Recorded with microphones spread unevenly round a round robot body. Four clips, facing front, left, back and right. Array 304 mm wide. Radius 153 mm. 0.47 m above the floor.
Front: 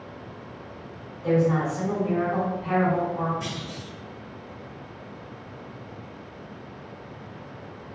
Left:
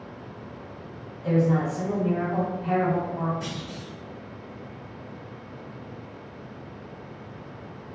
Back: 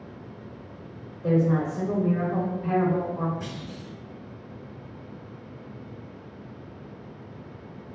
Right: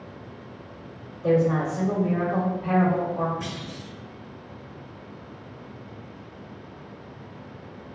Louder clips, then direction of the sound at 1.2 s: Right 2 dB, front 1 dB; 160° right.